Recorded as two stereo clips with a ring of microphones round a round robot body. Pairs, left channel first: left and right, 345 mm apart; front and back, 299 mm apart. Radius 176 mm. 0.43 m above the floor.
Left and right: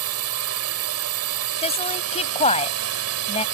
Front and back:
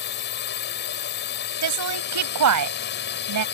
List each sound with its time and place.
0.0 s a drone: 50° right
1.6 s a woman speaking: 160° left